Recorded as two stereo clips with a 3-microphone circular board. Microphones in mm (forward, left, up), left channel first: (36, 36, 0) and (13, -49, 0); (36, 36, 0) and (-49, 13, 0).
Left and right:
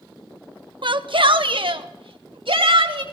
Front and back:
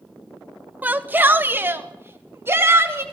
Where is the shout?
95° right, 1.4 m; by 3.0 s 105° right, 3 m.